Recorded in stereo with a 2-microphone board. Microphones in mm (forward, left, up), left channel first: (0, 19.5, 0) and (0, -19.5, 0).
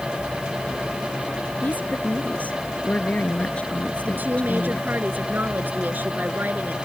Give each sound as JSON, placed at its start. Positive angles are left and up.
{"t": 1.6, "sound": "a woman speaking", "side_deg": 45}
{"t": 4.0, "sound": "a woman speaking", "side_deg": -50}